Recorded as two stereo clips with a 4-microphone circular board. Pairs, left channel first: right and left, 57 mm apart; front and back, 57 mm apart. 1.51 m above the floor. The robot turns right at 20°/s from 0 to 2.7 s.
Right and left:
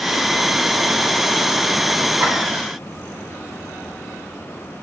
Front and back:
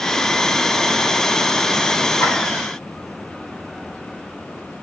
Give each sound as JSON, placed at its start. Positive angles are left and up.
{"t": 2.2, "sound": "a clap", "azimuth_deg": 50, "distance_m": 9.5}